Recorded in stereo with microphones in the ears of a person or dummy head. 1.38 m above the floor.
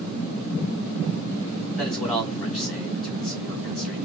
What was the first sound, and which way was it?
A man speaking, 5° left (ahead or behind).